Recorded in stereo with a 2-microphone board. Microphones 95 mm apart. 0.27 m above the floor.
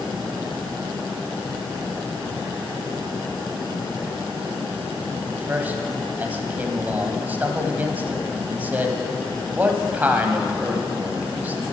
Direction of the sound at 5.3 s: 20° right (ahead or behind).